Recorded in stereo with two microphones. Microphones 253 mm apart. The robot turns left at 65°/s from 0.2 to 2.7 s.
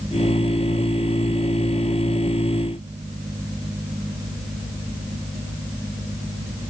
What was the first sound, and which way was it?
Only background noise.